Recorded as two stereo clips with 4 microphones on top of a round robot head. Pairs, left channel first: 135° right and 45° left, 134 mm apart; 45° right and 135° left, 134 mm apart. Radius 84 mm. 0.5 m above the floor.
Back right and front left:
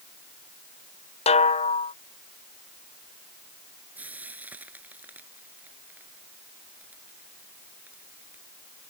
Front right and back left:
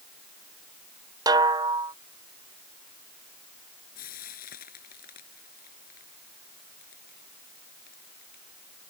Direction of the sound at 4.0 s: 35° right.